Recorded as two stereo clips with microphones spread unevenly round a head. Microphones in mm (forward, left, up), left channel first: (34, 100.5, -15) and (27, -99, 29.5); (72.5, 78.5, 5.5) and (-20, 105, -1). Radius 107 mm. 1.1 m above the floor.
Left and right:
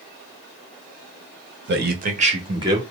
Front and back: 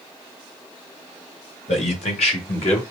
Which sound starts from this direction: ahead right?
A man speaking, at 1.7 s.